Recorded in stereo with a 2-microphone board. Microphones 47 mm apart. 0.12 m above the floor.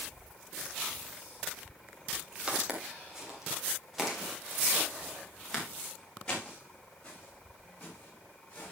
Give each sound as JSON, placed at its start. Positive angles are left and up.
{"t": 2.5, "sound": "footsteps", "side_deg": -15, "distance_m": 4.5}